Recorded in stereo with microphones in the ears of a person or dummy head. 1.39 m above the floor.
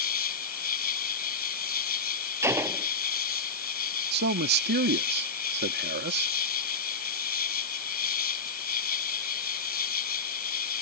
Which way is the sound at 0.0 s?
50° left (ahead or behind).